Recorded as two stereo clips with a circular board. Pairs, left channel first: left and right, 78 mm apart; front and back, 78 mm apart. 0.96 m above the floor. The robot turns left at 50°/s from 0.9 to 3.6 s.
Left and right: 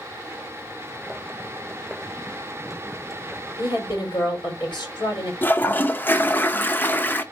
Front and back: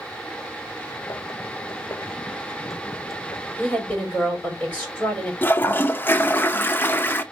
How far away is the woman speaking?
About 3 m.